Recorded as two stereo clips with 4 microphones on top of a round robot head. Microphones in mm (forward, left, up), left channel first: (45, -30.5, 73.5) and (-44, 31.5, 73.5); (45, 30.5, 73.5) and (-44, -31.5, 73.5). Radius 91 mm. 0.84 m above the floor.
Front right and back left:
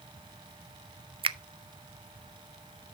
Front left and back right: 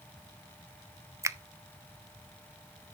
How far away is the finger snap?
About 0.6 m.